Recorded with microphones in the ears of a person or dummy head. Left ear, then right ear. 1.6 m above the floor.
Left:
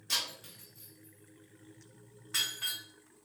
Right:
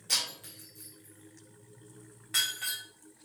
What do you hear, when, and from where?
0.1 s breaking glass: 15° right (ahead or behind), 1.6 m